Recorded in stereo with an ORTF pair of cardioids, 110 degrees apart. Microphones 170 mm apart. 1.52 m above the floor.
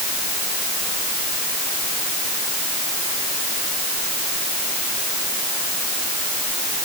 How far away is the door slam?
No door slam in this recording.